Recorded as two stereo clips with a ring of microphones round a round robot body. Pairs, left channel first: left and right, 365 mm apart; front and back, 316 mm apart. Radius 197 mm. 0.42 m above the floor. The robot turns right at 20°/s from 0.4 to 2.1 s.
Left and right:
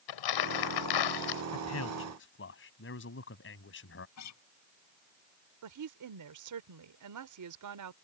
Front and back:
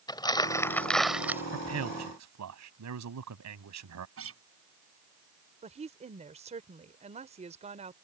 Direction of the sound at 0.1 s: 75° left.